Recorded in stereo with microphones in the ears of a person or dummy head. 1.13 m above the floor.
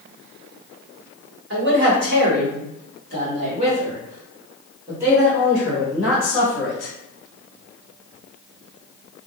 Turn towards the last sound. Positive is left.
turn(degrees=0)  # may be behind; listen again after turning